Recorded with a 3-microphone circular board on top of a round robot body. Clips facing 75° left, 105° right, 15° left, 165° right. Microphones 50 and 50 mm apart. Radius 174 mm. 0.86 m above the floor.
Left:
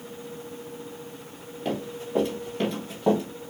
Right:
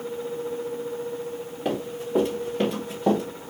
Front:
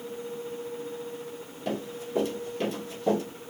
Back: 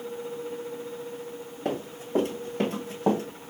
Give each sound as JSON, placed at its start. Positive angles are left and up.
{"t": 1.6, "sound": "running footsteps", "azimuth_deg": -175, "distance_m": 3.5}